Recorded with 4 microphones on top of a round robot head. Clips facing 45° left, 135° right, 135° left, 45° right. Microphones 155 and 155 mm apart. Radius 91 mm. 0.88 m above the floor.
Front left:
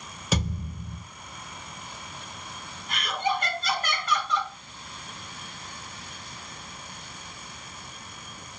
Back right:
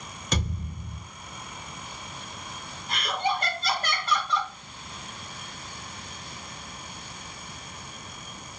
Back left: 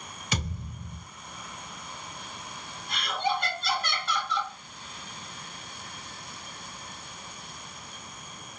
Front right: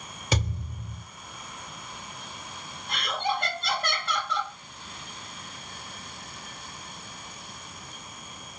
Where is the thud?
40° right, 1.9 m.